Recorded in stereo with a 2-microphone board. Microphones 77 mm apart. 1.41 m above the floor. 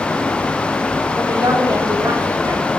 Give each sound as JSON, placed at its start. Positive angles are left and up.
{"t": 1.2, "sound": "a woman speaking", "side_deg": -65, "distance_m": 4.0}